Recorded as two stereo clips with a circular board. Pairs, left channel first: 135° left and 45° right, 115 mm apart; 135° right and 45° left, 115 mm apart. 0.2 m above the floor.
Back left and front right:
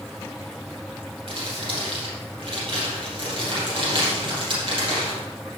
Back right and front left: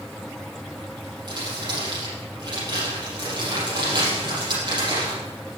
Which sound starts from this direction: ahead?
Crumpling, at 1.3 s.